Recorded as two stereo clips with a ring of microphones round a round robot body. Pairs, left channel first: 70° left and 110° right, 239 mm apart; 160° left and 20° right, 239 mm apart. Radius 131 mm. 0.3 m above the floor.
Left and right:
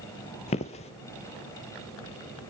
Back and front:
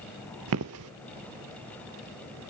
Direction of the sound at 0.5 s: 5° left.